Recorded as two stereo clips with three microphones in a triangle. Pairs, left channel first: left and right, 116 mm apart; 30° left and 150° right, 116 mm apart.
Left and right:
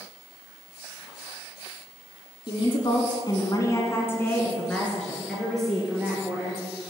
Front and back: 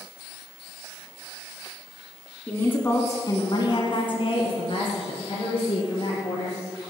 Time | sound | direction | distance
2.5 | a woman speaking | 105° left | 1.6 m